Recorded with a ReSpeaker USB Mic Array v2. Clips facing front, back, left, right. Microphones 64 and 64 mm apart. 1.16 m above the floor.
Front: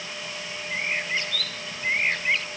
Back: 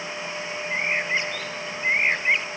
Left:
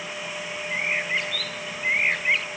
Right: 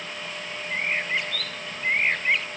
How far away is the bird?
About 0.9 m.